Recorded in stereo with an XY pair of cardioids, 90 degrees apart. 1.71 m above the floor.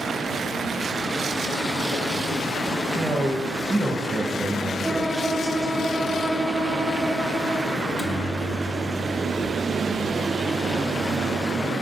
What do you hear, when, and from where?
3.0 s a man speaking: 30° right, 2.5 m
4.8 s a violin: 15° right, 0.9 m
7.8 s a microwave: 25° right, 1.5 m